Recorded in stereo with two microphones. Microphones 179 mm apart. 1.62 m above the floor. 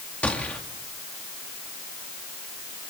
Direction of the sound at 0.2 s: 5° left (ahead or behind).